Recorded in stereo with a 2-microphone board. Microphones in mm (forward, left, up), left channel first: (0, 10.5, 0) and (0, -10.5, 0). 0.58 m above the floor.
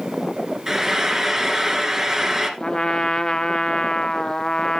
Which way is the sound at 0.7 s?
25° right (ahead or behind).